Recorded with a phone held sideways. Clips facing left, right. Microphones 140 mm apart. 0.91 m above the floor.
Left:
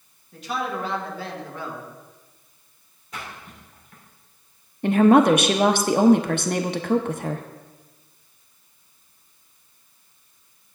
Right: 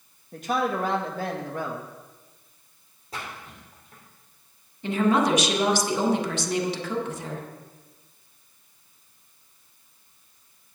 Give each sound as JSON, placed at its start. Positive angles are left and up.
{"t": 0.3, "sound": "a man speaking", "side_deg": -50, "distance_m": 1.4}
{"t": 3.1, "sound": "a splash", "side_deg": -35, "distance_m": 3.0}
{"t": 4.8, "sound": "a woman speaking", "side_deg": 55, "distance_m": 0.9}